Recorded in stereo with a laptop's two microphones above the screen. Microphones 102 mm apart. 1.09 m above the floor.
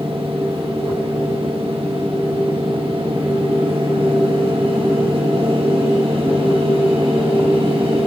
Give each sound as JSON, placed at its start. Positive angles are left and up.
{"t": 0.0, "sound": "a machine running", "side_deg": -65, "distance_m": 1.6}